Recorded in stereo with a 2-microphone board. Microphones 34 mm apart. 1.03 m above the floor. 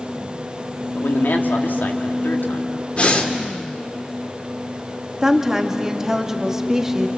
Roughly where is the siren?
No siren in this recording.